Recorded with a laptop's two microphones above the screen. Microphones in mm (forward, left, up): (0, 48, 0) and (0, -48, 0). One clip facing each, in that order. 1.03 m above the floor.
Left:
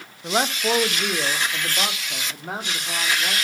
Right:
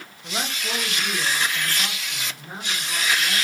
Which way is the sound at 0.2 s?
40° left (ahead or behind).